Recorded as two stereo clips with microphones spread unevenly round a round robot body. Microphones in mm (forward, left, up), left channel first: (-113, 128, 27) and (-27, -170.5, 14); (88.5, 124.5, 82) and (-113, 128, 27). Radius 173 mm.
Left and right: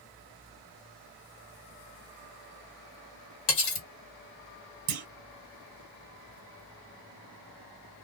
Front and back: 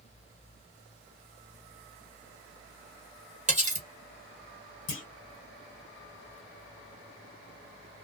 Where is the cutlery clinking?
125° left, 1.6 m.